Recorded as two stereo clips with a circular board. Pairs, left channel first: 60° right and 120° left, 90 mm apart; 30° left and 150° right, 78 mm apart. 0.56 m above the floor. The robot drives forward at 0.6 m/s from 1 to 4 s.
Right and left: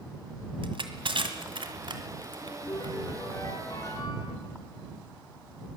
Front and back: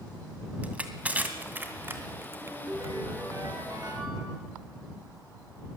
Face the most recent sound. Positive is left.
turn(degrees=-110)